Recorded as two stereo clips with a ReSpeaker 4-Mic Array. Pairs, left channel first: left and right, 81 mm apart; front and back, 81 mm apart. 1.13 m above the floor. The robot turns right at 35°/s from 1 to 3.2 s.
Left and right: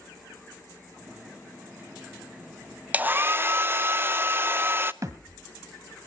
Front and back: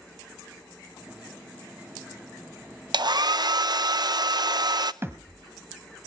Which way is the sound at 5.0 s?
130° right.